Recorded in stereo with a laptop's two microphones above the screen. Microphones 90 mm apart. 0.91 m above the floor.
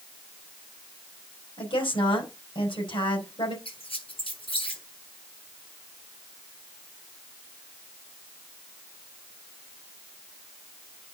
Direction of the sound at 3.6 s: 85° left.